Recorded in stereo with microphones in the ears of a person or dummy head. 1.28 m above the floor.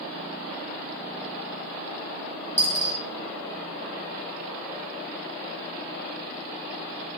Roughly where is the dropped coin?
Centre.